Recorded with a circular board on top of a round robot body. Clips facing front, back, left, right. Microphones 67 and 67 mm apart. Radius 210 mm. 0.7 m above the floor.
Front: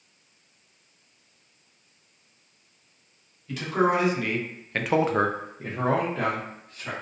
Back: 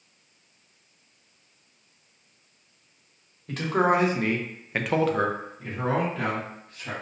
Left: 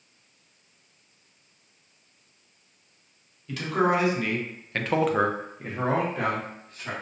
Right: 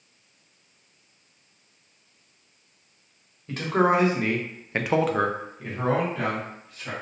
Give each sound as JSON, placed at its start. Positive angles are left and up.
{"t": 3.5, "sound": "a man speaking", "azimuth_deg": -140, "distance_m": 1.0}